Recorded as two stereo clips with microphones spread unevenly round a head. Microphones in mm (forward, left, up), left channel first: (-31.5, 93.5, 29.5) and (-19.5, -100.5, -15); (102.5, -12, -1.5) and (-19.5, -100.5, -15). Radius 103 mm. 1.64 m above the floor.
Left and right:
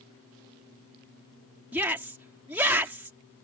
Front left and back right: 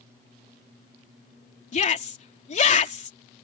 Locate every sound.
1.7 s a shout: 5° right